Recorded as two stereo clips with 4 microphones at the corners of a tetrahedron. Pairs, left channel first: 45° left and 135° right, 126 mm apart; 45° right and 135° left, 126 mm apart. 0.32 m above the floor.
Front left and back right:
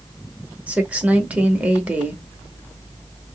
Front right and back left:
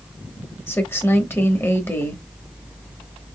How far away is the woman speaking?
About 0.9 m.